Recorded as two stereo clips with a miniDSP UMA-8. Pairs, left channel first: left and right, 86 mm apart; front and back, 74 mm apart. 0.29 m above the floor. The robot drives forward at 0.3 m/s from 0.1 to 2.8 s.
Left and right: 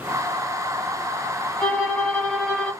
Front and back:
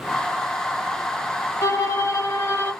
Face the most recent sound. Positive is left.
turn(degrees=40)